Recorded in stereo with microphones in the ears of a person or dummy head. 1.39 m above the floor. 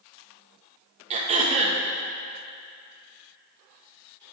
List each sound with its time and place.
1.1 s throat clearing: 35° right (ahead or behind), 1.0 m